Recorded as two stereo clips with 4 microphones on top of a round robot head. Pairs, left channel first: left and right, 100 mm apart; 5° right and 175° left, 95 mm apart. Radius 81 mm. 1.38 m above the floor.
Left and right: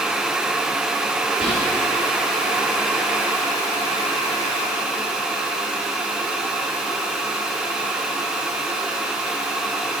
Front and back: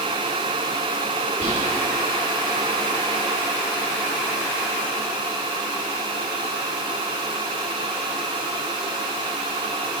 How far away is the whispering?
About 1.7 m.